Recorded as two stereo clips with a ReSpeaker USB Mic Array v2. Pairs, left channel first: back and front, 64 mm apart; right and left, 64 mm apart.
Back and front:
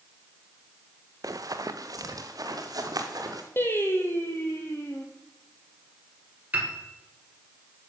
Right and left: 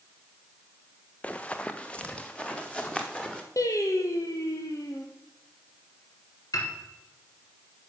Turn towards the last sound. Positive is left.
turn(degrees=-65)